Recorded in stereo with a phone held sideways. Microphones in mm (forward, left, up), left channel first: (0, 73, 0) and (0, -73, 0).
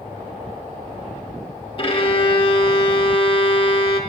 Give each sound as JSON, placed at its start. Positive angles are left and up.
{"t": 1.8, "sound": "a violin", "side_deg": 40, "distance_m": 0.8}